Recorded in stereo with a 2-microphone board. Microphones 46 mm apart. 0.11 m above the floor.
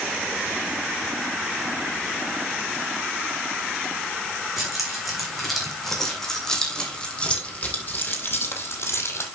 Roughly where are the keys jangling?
Centre.